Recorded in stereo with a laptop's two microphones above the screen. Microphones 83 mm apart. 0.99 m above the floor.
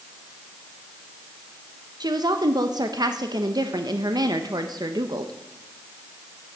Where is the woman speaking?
55° right (ahead or behind), 0.8 m.